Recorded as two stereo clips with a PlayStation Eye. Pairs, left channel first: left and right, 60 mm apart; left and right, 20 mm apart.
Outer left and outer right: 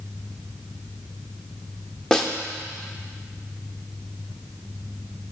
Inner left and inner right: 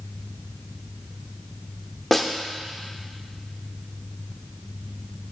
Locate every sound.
2.1 s a snare drum: 10° left (ahead or behind), 0.8 m